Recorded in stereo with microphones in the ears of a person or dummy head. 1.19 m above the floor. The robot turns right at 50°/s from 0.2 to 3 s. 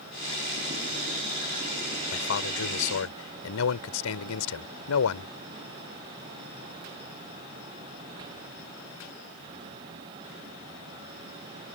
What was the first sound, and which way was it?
A man speaking, 60° left.